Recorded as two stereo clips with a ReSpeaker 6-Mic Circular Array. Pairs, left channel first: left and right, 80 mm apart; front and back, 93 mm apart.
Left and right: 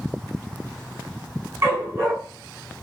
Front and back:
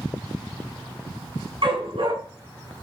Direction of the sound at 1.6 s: 150° right.